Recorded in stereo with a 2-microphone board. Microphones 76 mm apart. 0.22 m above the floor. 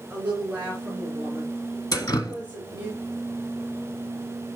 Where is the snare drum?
I don't hear a snare drum.